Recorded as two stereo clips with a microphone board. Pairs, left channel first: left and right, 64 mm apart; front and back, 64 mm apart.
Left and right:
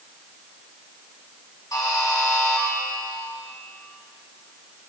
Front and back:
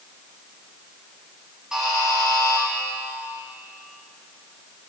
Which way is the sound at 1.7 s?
100° left.